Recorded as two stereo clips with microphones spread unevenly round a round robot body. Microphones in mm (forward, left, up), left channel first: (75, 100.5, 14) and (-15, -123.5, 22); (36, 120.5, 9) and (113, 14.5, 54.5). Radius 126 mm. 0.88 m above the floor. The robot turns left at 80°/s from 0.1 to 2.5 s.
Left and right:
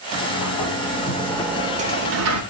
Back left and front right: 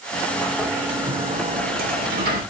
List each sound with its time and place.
0.1 s a sliding door: 80° left, 3 m; by 2.4 s 100° right, 3 m